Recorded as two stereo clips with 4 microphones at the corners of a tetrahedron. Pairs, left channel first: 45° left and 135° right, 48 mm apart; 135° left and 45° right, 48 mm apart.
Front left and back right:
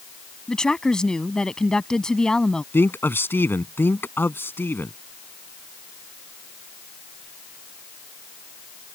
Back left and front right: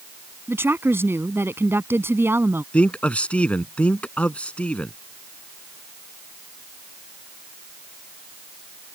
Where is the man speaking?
75° left.